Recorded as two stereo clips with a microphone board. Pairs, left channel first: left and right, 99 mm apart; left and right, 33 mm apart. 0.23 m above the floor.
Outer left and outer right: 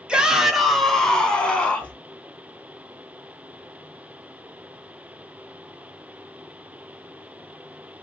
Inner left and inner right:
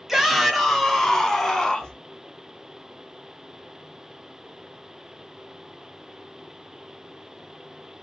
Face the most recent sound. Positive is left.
turn(degrees=15)  # may be behind; listen again after turning